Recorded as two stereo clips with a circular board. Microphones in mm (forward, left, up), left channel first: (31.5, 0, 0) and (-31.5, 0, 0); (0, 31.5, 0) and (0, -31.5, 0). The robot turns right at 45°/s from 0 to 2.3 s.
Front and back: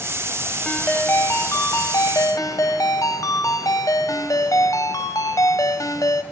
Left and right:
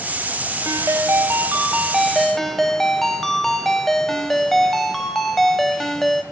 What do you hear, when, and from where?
0.7 s a ringtone: 70° right, 1.0 m; by 6.2 s 5° left, 1.0 m